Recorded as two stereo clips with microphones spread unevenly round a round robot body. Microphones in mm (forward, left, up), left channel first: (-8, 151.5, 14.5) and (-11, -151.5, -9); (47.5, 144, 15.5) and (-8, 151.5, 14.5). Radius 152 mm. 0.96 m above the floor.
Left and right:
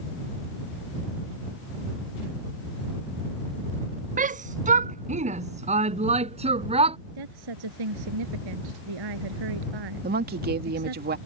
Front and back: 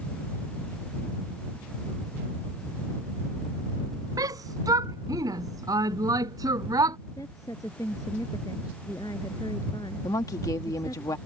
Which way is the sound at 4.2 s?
155° right.